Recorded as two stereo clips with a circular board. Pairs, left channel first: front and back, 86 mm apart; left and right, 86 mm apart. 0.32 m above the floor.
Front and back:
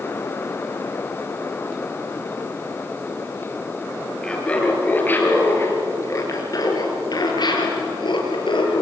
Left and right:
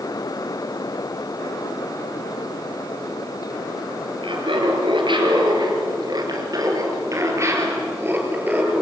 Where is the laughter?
80° right, 6 m; by 8.8 s 15° right, 7 m.